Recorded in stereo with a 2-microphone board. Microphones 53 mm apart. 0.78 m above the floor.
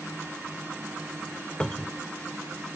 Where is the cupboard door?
15° left (ahead or behind).